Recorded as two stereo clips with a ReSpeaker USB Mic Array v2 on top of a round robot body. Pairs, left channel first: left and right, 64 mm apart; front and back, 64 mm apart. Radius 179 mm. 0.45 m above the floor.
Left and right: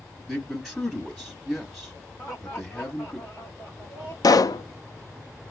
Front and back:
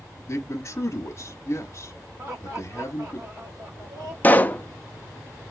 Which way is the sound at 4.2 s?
65° left.